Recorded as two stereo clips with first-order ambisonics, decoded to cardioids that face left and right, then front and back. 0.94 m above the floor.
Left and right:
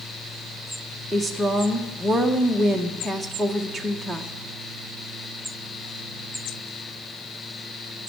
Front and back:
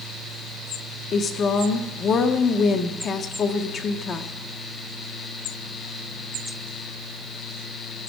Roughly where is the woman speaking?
Ahead.